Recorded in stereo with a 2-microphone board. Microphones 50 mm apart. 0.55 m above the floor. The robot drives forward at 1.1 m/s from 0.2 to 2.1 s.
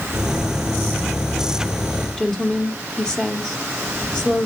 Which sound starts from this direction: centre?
A woman speaking, at 2.2 s.